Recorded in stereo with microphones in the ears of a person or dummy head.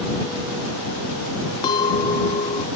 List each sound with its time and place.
1.6 s a clink: 30° left (ahead or behind)